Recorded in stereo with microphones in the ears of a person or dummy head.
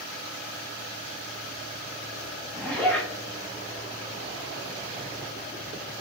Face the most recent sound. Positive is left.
turn(degrees=10)  # may be behind; listen again after turning